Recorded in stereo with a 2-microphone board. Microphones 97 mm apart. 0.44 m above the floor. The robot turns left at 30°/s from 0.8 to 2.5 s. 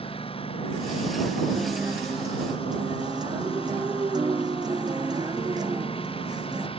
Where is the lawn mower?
115° left; by 6.8 s 65° left.